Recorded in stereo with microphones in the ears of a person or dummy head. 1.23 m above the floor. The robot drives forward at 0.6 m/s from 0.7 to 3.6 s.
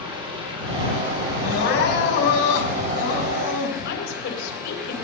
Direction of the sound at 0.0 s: 25° right (ahead or behind).